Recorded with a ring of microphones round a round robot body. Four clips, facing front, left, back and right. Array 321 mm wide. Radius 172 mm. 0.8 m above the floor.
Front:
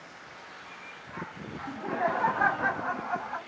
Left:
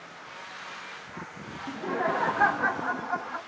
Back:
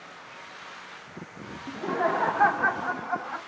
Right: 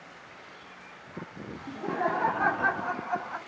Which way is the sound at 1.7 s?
160° left.